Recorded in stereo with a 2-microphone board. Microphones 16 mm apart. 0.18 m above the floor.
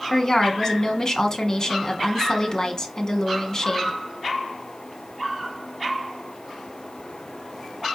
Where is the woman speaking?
35° left (ahead or behind), 1.2 m.